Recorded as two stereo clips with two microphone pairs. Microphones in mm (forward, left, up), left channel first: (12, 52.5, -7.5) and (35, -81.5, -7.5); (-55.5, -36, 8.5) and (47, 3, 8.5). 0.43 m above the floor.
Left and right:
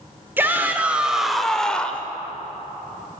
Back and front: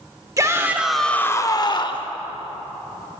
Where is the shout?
15° right, 0.9 m; by 2.1 s straight behind, 1.2 m.